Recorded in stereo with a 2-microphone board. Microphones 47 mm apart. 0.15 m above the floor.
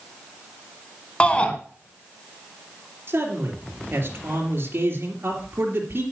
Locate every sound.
1.2 s a shout: 25° left (ahead or behind), 1.1 m
3.1 s a man speaking: 50° right (ahead or behind), 3 m